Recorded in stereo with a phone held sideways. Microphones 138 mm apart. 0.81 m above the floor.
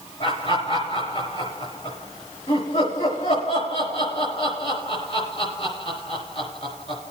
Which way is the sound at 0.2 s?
45° left (ahead or behind).